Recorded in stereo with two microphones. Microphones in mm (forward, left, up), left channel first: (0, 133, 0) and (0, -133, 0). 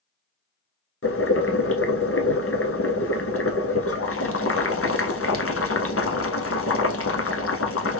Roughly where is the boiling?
Left.